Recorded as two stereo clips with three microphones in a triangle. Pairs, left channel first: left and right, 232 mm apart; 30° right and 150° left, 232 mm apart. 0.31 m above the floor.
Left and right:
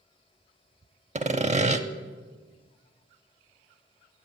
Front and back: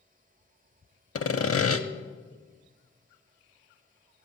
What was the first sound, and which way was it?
Sawing, 30° right.